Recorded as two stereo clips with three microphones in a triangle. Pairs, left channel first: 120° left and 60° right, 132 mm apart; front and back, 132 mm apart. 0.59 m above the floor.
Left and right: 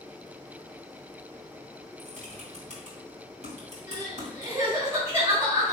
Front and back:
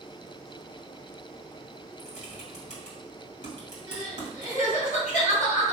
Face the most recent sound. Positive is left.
turn(degrees=5)